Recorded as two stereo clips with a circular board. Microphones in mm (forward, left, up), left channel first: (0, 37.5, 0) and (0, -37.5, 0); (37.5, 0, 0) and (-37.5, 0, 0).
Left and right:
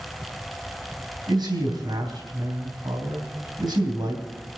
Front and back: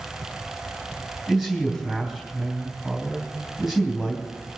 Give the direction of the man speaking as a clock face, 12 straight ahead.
3 o'clock.